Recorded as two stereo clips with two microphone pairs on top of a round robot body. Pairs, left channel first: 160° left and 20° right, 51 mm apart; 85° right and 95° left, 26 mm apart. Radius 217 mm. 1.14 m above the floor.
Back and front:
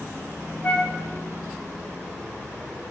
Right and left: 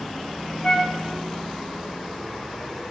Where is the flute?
135° right, 0.6 m.